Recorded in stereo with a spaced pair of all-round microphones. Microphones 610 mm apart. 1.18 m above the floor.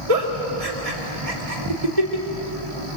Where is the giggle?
70° right (ahead or behind), 2 m.